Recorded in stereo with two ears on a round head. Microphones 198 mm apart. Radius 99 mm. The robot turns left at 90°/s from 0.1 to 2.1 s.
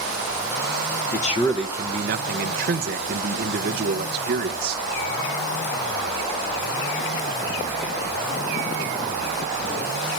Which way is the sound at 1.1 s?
45° left.